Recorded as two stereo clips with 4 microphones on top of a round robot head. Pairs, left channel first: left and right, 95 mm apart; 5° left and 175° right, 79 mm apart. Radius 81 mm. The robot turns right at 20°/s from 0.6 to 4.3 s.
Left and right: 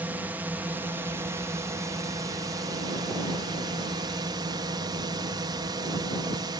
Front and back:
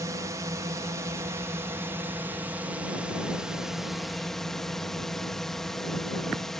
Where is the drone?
155° right; by 6.6 s 80° right.